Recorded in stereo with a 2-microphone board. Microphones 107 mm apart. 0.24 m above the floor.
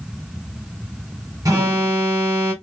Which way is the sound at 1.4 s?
35° right (ahead or behind).